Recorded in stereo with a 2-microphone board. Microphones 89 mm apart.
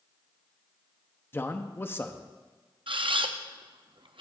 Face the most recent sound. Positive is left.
turn(degrees=-70)  # may be behind; listen again after turning